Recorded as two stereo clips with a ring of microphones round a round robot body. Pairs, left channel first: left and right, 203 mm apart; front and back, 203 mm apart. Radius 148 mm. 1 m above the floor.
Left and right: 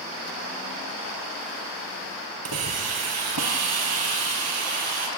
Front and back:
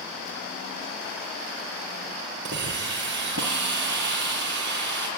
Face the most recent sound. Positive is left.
turn(degrees=-120)